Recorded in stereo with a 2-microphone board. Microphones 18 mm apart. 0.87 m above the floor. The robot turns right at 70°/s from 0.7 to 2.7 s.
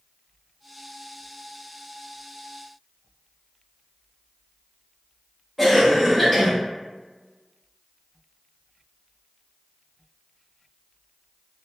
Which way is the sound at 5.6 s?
Centre (ahead or behind).